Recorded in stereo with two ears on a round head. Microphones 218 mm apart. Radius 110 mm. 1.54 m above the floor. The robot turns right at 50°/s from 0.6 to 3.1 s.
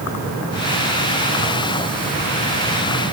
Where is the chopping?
No chopping in this recording.